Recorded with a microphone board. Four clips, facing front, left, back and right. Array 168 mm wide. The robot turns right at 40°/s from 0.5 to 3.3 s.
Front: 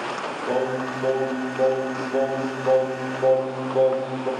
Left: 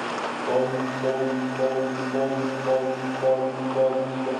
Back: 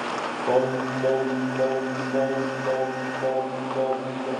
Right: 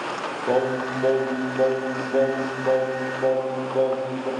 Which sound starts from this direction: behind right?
Singing, at 0.5 s.